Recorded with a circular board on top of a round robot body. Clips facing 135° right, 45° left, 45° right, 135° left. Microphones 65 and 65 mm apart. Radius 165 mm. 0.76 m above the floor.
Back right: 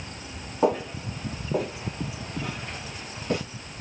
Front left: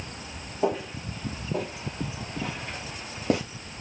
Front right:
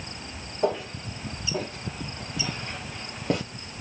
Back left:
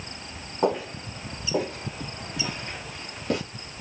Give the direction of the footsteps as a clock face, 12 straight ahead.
6 o'clock.